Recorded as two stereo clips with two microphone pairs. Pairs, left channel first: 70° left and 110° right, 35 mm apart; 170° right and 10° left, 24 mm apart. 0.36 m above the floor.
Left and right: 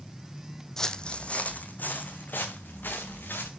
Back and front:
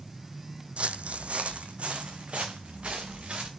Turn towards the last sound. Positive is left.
turn(degrees=50)